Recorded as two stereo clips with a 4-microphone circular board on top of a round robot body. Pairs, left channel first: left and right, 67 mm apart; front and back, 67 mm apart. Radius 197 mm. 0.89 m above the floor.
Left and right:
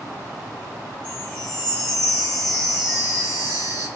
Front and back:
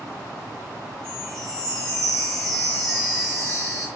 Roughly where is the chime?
Left.